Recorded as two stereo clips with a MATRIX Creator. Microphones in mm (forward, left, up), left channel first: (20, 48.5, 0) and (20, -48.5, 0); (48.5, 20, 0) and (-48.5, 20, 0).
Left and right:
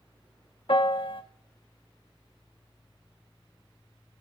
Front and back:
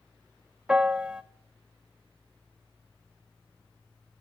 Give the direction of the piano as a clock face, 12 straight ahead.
9 o'clock.